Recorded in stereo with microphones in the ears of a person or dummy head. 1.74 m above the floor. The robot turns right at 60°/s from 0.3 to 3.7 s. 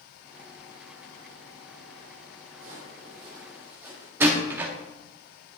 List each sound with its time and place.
2.5 s footsteps: 50° right (ahead or behind), 3 m; by 4.1 s 10° right (ahead or behind), 5 m
4.2 s a door slam: 15° right (ahead or behind), 0.7 m